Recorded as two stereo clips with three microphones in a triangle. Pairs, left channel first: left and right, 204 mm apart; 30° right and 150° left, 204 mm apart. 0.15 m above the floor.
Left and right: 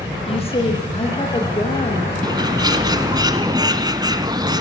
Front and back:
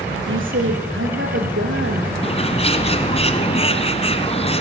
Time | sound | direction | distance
0.3 | a woman speaking | 150° left | 5 m
2.2 | a bird | 40° right | 1.7 m